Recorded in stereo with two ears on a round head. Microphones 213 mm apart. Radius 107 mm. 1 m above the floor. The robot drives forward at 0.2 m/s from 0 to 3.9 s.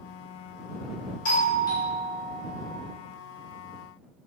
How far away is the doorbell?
About 1.1 m.